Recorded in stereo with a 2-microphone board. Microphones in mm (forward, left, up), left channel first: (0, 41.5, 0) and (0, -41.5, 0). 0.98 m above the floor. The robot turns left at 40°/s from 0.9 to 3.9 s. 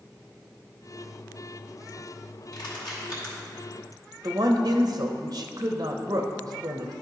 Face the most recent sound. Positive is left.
turn(degrees=-55)  # may be behind; listen again after turning